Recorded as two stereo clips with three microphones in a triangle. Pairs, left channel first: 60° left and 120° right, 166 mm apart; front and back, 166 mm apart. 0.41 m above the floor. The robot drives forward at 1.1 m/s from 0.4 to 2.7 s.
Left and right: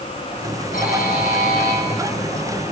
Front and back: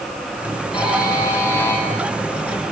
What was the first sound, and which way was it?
A buzzer, 60° left.